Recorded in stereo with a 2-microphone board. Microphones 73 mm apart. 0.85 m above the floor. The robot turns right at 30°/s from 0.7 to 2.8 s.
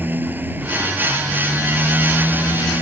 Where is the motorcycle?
25° right; by 2.8 s 40° left.